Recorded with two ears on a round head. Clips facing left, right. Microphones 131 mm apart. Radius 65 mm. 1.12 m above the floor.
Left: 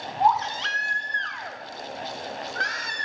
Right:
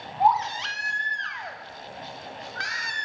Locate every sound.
0.2 s a baby crying: 5° right (ahead or behind), 0.7 m